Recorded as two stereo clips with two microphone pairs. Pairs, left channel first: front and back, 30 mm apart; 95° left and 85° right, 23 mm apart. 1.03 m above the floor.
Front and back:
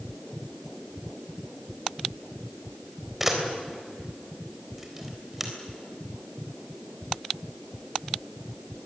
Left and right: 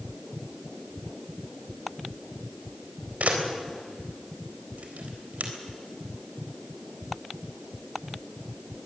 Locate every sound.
3.2 s a camera shutter: 95° right, 3.5 m